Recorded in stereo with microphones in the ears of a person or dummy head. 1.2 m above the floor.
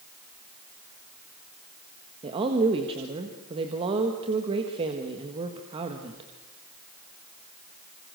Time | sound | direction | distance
2.2 | a woman speaking | 30° right (ahead or behind) | 1.7 m